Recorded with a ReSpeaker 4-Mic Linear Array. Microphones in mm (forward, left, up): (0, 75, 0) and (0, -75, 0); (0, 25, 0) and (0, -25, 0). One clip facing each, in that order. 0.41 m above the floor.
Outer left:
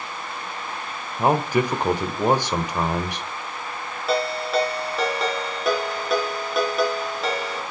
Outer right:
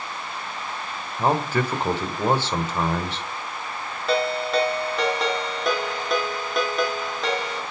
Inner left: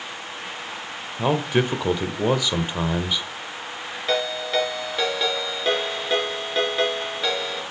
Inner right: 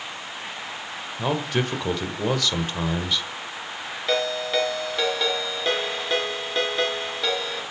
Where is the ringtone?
5° left (ahead or behind), 4 m.